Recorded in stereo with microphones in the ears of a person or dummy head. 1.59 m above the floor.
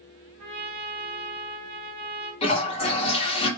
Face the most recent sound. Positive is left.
turn(degrees=35)  # may be behind; listen again after turning